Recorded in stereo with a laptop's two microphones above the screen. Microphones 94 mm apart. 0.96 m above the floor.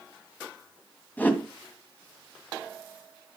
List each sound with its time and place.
1.2 s a whoosh: 15° left (ahead or behind), 1.7 m